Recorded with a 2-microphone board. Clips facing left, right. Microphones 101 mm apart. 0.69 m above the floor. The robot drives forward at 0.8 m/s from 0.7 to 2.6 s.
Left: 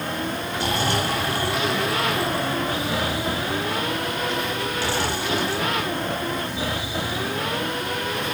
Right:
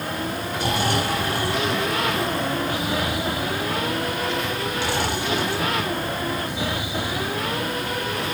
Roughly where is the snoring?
Centre.